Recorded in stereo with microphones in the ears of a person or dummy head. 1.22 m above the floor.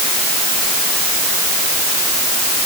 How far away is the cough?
I don't hear a cough.